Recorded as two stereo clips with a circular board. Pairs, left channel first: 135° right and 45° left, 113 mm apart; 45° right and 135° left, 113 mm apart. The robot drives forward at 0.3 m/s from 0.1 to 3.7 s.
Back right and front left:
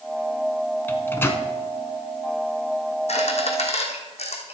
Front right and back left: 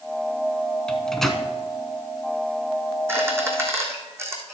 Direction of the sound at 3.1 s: 155° right.